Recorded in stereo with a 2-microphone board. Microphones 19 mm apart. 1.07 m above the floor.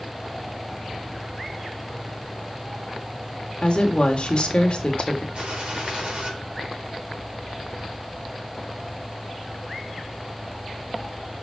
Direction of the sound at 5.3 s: 60° right (ahead or behind).